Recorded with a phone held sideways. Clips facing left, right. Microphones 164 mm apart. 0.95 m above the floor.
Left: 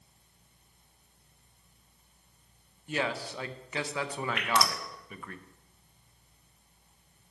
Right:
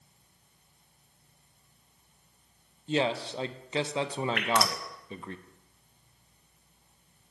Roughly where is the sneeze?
No sneeze in this recording.